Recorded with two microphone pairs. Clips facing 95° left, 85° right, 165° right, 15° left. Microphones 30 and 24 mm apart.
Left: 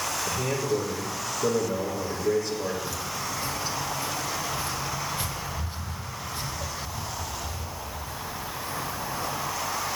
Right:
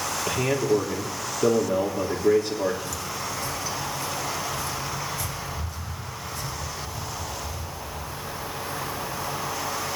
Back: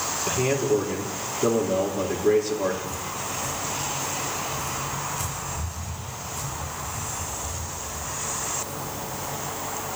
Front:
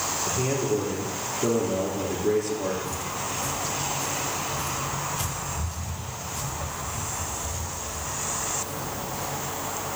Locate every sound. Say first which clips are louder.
0.3 s a man speaking: right 6 dB, back 4 dB; 100° right, 3 m
2.8 s footsteps: right 1 dB, even; 25° left, 2.5 m; by 9.5 s 50° left, 6.5 m